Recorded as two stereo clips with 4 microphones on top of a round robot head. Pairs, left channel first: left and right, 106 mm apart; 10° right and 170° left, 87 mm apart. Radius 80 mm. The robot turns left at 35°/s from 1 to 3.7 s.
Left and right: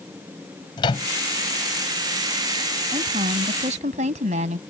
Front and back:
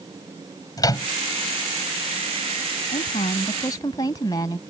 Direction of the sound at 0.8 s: 35° left.